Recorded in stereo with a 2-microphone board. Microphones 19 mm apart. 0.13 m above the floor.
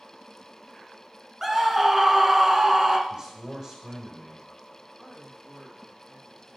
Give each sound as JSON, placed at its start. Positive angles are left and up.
{"t": 1.4, "sound": "a scream", "side_deg": -20, "distance_m": 1.5}
{"t": 3.1, "sound": "a man speaking", "side_deg": -35, "distance_m": 6.0}
{"t": 5.0, "sound": "a man speaking", "side_deg": -50, "distance_m": 7.0}